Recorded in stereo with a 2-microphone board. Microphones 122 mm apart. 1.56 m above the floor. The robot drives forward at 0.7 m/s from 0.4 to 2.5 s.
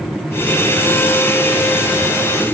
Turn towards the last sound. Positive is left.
No sound to turn to.